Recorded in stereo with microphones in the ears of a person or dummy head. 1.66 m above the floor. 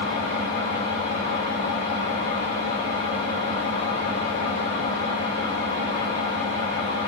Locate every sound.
0.0 s an engine running: 55° left (ahead or behind), 3 m